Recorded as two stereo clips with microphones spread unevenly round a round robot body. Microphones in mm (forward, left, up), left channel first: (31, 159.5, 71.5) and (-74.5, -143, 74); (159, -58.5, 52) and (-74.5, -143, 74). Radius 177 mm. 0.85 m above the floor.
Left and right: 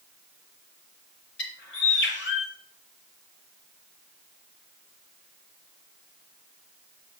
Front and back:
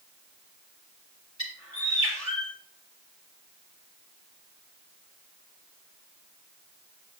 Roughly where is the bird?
Behind left.